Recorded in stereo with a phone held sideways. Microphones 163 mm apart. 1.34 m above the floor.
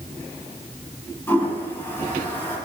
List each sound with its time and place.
1.3 s a toilet flushing: 15° left (ahead or behind), 1.3 m